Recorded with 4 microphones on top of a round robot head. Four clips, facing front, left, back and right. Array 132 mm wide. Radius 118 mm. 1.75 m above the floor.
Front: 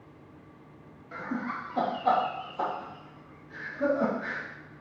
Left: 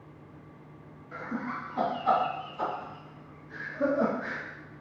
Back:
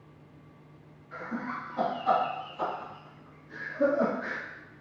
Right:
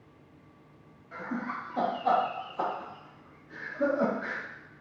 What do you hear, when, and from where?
1.1 s laughter: 5° right, 1.5 m; by 4.4 s 145° right, 1.5 m